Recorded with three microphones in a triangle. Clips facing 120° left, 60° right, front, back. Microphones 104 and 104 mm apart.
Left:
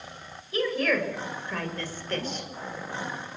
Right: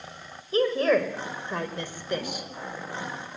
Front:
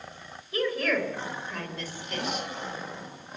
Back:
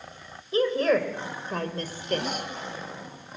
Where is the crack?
No crack in this recording.